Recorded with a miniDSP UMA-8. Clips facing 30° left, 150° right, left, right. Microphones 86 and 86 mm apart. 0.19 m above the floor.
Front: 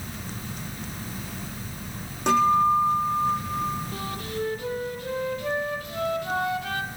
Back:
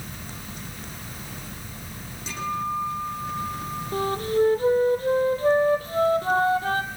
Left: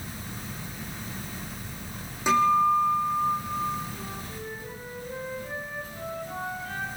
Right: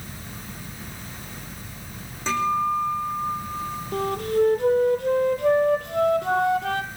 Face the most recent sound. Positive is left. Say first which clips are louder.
# back 9 dB, right 16 dB
turn(degrees=-100)